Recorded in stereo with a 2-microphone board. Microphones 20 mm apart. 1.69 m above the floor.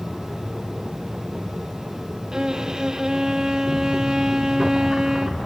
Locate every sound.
2.3 s a violin: 30° right (ahead or behind), 1.3 m